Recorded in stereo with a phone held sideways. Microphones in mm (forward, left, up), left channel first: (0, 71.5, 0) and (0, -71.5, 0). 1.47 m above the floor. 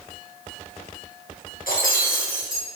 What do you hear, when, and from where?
1.7 s breaking glass: 80° left, 6 m